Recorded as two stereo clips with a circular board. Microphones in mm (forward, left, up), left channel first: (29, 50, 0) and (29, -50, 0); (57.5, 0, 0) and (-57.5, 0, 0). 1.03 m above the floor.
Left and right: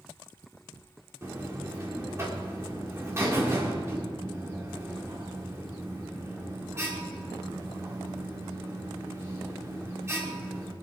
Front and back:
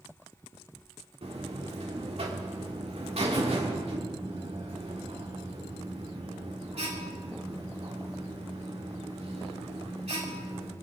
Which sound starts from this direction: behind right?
A buzzer, at 1.2 s.